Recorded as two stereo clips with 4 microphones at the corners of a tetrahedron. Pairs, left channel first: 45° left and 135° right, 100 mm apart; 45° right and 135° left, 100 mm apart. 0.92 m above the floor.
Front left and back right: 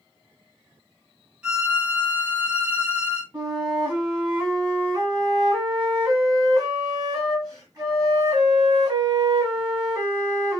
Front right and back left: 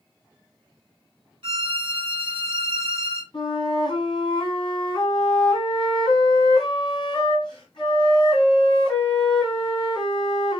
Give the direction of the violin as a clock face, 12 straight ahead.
7 o'clock.